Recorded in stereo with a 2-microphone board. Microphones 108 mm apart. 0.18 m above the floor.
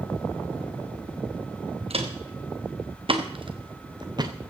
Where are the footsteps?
65° right (ahead or behind), 2.5 m; by 4.5 s 35° right (ahead or behind), 1.4 m.